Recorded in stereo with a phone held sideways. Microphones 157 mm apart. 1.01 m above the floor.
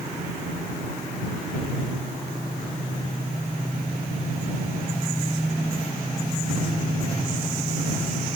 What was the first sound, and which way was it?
Only background noise.